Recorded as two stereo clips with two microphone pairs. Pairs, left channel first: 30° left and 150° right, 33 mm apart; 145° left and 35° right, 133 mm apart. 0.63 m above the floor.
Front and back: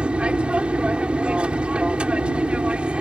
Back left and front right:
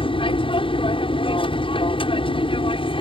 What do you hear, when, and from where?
0.0 s an aircraft: 170° left